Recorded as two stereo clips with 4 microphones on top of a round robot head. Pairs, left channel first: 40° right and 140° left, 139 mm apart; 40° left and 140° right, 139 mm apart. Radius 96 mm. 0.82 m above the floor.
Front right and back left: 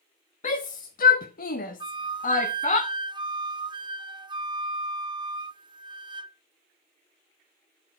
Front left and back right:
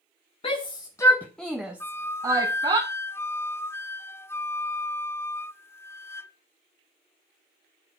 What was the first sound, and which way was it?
A shout, 10° right.